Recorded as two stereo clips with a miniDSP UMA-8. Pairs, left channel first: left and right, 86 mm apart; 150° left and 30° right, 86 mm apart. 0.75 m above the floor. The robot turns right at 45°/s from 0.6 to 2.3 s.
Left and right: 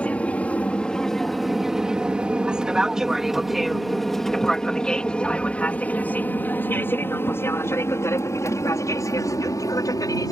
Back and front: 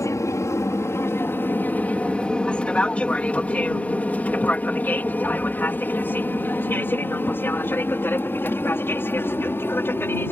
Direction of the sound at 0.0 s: 155° left.